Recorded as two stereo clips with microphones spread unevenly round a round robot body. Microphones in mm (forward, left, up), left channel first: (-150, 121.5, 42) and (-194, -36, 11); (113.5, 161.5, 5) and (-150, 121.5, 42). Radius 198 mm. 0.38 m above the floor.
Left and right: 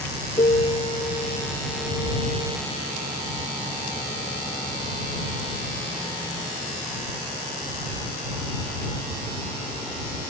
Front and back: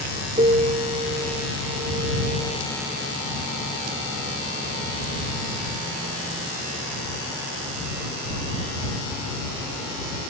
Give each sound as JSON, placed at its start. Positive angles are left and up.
{"t": 0.4, "sound": "a piano", "azimuth_deg": 125}